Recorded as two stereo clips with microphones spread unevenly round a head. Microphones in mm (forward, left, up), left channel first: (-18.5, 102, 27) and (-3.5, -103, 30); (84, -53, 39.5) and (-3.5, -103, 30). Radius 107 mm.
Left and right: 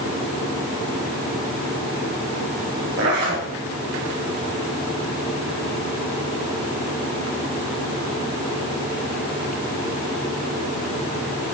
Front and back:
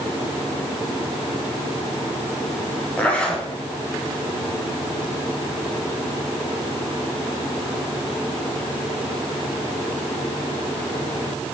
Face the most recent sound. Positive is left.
turn(degrees=-45)